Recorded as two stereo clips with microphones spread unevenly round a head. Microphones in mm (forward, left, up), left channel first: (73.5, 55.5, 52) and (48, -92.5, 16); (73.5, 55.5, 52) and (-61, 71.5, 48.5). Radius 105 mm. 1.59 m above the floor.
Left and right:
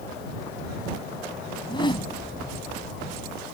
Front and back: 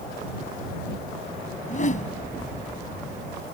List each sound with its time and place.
1.6 s a whoosh: 25° left